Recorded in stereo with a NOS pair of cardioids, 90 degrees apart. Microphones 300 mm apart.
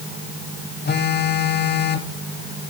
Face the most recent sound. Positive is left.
turn(degrees=35)